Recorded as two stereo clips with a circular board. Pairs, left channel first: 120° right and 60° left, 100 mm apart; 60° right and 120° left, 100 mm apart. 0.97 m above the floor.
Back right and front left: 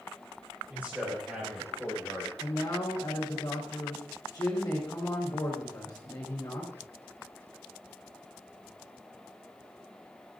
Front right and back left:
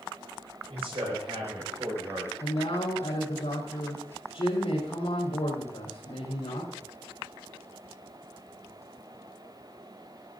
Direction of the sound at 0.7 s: 135° left.